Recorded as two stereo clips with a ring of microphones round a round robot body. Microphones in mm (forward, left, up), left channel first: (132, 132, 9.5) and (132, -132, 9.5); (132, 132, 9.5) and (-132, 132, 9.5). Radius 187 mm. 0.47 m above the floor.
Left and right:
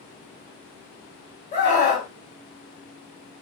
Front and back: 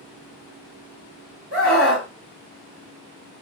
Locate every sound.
1.5 s a scream: 150° left, 2.5 m